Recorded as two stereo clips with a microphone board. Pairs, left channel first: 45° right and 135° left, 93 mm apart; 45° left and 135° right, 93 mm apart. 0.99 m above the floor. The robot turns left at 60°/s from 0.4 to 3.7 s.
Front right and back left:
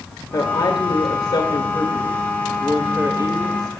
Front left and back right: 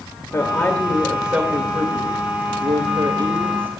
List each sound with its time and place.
0.3 s a woman speaking: 5° right, 1.9 m; by 3.7 s 155° left, 1.9 m